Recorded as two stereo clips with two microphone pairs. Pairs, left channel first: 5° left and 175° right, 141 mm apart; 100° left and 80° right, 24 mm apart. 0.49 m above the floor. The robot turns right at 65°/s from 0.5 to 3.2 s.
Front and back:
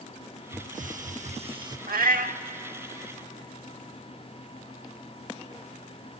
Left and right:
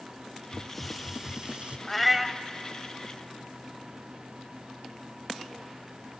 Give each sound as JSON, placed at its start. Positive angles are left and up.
{"t": 0.5, "sound": "a hiss", "azimuth_deg": 165, "distance_m": 0.8}
{"t": 1.9, "sound": "a cat meowing", "azimuth_deg": 175, "distance_m": 0.7}